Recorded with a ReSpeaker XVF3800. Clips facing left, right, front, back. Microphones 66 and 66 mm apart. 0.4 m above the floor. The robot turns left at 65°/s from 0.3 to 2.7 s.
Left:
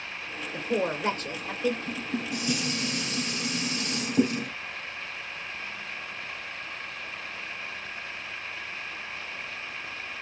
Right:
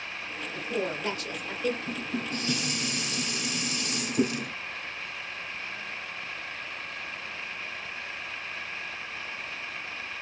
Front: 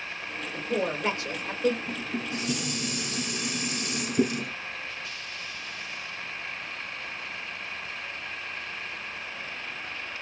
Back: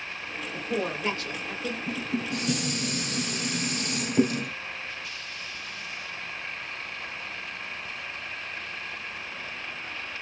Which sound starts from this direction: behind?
Dishes clattering, at 1.9 s.